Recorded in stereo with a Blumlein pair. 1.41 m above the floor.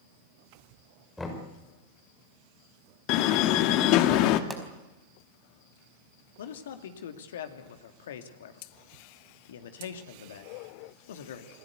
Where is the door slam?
40° left, 1.8 m.